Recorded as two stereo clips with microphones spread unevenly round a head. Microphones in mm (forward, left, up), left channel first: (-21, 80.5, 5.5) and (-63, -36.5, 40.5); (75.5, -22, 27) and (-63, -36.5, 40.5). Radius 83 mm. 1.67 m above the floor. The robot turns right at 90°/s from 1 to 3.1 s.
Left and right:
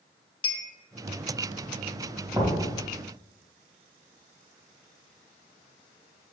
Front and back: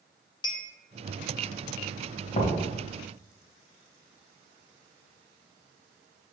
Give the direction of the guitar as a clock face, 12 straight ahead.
No guitar in this recording.